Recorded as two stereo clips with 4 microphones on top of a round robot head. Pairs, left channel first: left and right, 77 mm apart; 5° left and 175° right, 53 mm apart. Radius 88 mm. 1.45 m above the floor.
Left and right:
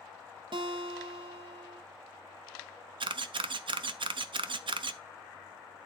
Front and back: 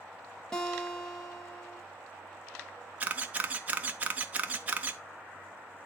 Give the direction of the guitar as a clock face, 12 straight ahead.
3 o'clock.